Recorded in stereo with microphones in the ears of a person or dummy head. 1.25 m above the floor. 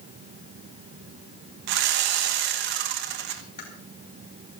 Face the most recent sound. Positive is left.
turn(degrees=40)  # may be behind; listen again after turning